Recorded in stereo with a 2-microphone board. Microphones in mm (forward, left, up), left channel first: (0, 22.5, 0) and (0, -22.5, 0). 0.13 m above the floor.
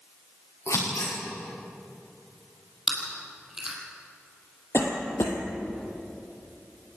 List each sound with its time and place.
0.7 s scissors: 75° left (ahead or behind), 8.5 m
2.9 s chewing: 10° right (ahead or behind), 4 m
4.7 s a cough: 60° left (ahead or behind), 4 m